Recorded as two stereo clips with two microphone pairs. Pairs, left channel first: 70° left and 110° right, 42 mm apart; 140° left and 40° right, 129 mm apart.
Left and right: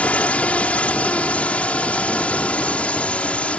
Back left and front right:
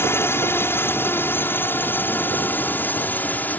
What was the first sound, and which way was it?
A drone, 85° left.